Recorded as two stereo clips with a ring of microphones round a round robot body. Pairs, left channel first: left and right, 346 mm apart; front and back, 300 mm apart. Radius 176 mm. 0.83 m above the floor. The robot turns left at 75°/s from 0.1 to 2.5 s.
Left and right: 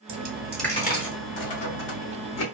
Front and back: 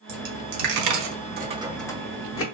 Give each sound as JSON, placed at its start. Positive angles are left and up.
{"t": 0.1, "sound": "a dropped coin", "azimuth_deg": -145, "distance_m": 0.7}